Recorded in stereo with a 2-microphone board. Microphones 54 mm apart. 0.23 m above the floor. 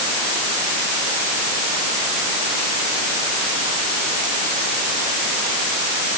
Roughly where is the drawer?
No drawer in this recording.